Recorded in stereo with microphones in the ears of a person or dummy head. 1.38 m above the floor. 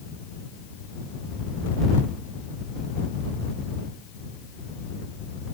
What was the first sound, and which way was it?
Only background noise.